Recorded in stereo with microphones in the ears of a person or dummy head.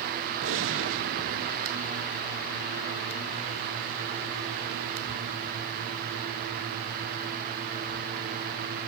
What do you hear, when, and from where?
0.4 s a gunshot: 60° right (ahead or behind), 0.9 m